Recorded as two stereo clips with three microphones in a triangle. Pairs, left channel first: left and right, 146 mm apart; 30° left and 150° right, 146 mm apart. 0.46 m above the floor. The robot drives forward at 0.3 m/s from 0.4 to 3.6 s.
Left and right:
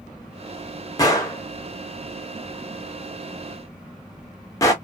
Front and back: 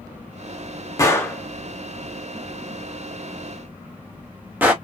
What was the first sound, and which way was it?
A gunshot, 65° left.